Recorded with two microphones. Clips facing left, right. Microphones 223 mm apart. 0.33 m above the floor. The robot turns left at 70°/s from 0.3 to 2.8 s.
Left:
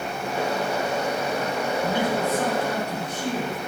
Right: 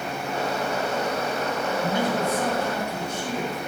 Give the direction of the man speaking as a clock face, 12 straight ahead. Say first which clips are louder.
Even; 5 o'clock.